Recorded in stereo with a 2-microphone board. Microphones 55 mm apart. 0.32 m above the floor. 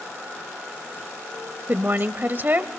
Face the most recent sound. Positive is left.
turn(degrees=-35)  # may be behind; listen again after turning